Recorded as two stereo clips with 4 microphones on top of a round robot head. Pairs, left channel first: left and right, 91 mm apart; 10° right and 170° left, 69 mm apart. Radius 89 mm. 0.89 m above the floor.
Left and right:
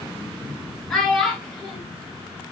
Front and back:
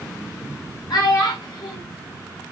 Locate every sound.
0.9 s a child speaking: 5° left, 1.7 m